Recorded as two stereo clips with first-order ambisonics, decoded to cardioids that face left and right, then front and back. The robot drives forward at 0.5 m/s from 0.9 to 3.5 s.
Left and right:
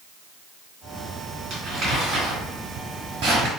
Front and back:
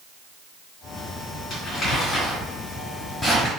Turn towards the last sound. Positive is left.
turn(degrees=-90)